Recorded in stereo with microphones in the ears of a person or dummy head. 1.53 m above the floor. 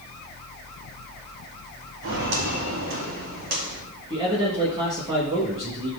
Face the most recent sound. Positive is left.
turn(degrees=-25)  # may be behind; listen again after turning